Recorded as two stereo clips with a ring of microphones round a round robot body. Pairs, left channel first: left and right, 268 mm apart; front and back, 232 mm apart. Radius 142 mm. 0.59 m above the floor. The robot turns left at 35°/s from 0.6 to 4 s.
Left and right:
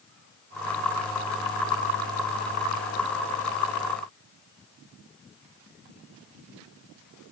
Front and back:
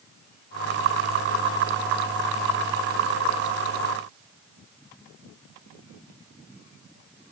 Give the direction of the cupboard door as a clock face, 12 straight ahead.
I don't hear a cupboard door.